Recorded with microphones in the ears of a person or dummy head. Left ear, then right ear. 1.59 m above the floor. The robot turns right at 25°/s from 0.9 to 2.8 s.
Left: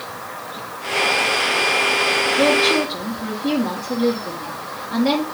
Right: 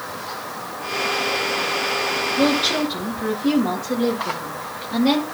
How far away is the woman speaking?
About 1.8 m.